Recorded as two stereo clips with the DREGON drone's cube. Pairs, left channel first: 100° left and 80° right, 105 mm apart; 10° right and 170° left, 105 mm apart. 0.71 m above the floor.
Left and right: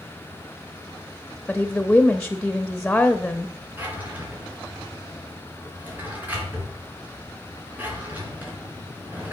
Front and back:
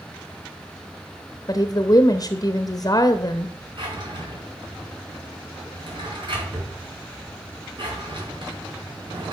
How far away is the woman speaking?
About 0.7 m.